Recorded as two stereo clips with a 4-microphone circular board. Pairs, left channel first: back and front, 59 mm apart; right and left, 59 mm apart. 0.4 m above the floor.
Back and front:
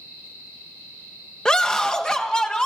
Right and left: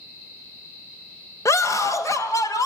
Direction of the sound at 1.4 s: 105° right.